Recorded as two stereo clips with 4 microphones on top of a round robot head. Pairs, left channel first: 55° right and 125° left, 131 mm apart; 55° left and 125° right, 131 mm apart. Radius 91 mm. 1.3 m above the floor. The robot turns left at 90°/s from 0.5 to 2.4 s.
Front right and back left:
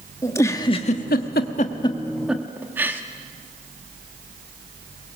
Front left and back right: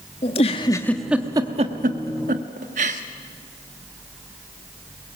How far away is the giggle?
About 1.0 m.